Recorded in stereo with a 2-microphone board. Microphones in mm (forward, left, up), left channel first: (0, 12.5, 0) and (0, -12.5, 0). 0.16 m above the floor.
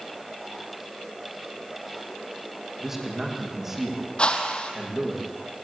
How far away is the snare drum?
No snare drum in this recording.